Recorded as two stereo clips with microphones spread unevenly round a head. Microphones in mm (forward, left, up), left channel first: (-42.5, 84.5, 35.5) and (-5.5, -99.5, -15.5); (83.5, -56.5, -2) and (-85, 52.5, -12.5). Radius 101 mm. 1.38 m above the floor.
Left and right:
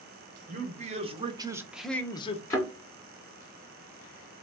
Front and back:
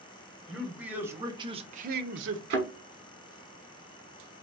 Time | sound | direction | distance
0.5 | a man speaking | 125° right | 1.2 m
2.5 | a thud | 160° left | 1.4 m